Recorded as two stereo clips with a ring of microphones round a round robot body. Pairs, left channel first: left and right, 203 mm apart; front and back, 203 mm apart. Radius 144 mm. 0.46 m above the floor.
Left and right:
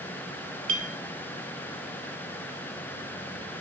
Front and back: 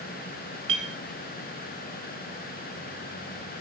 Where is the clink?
130° right, 1.0 m.